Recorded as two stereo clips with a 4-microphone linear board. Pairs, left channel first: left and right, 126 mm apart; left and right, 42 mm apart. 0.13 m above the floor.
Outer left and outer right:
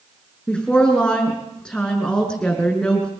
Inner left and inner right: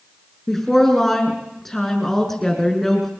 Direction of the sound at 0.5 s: 5° left (ahead or behind).